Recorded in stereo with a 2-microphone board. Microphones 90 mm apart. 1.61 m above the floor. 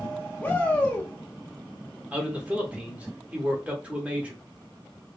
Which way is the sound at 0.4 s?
20° left (ahead or behind).